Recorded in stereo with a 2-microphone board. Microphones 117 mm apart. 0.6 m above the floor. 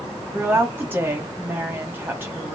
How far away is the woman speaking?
About 1.2 m.